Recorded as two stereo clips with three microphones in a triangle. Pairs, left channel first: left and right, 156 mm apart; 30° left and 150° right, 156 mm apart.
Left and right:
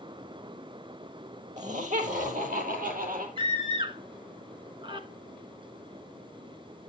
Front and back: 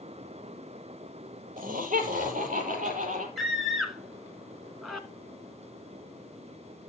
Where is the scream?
60° right, 1.5 m.